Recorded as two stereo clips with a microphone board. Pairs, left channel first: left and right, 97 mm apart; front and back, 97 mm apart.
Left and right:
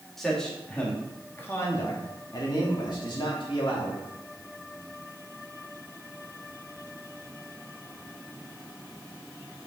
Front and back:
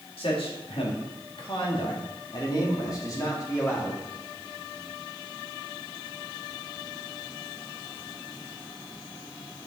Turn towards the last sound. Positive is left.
turn(degrees=60)